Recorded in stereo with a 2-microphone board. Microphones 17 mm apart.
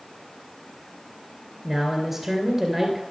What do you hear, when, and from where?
1.6 s a man speaking: 25° right (ahead or behind), 2 m